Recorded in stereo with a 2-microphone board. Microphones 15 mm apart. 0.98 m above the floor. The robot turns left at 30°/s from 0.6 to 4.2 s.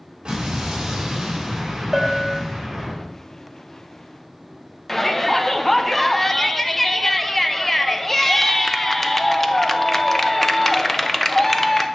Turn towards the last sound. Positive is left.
turn(degrees=25)  # may be behind; listen again after turning